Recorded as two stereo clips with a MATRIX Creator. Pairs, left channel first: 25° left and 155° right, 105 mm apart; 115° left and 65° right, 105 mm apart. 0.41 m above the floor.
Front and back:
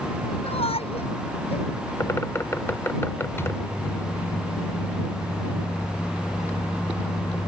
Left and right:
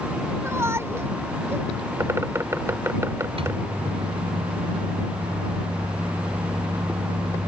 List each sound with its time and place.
0.4 s a shout: straight ahead
2.0 s a bird: 25° right
3.4 s a microwave: 45° right